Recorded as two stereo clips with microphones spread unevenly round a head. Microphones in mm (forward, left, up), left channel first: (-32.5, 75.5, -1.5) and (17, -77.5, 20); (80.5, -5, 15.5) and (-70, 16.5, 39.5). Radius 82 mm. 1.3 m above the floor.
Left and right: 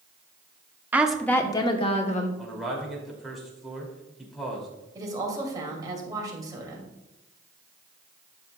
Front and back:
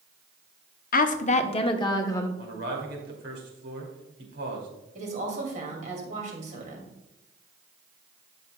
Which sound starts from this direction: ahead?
A woman speaking, at 0.9 s.